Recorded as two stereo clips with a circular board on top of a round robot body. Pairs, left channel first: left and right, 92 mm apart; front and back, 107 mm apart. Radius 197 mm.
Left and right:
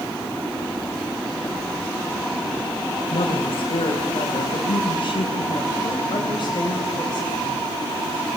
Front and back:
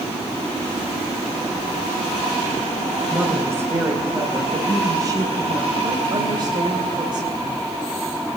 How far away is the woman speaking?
About 4 m.